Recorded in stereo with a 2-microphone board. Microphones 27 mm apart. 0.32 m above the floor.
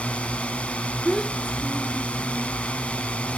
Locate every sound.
0.0 s a drone: 60° left (ahead or behind)
1.1 s a child speaking: 20° left (ahead or behind)